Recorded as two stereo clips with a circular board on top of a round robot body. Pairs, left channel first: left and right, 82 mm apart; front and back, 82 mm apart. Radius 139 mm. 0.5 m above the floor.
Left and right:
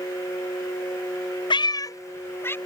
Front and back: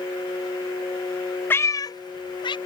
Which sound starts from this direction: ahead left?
A cat meowing, at 1.5 s.